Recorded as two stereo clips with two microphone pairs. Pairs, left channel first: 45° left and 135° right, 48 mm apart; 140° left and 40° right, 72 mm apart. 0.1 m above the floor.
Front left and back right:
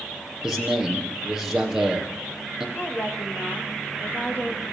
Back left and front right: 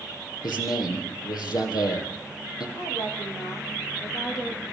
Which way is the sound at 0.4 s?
145° left.